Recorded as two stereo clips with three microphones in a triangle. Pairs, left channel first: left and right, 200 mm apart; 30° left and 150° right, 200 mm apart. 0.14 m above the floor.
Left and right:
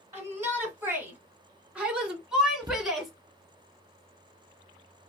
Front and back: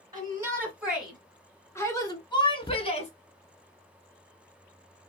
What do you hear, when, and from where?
0.1 s a shout: 140° right, 1.6 m; by 3.1 s straight ahead, 1.9 m
2.6 s a cupboard door: 35° right, 0.7 m